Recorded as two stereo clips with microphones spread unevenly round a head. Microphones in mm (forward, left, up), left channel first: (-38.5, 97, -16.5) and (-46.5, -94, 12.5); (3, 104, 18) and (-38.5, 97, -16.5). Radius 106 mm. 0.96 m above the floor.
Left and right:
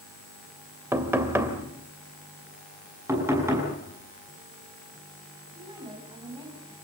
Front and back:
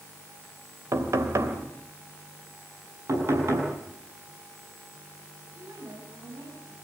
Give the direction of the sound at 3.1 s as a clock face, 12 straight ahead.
6 o'clock.